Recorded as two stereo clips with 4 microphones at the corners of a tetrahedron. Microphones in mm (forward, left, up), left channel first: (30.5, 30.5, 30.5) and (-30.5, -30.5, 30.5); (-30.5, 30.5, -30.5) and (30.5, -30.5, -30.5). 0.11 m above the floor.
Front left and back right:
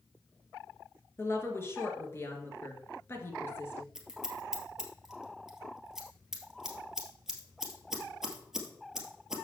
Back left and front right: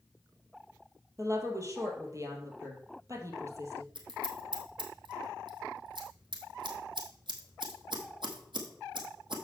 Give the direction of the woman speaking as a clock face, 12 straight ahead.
12 o'clock.